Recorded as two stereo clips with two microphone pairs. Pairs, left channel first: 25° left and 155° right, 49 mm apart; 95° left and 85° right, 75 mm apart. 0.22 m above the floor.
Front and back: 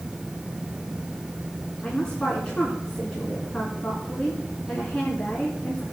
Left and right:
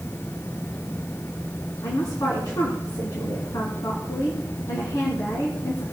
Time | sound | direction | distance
1.8 | a woman speaking | 85° left | 2.5 m